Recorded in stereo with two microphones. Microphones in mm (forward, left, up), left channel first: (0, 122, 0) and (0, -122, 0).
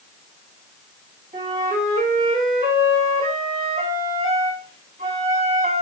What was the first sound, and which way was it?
A flute, 30° right (ahead or behind).